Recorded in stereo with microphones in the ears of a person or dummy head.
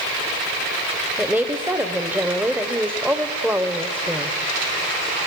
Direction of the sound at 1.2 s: Centre (ahead or behind).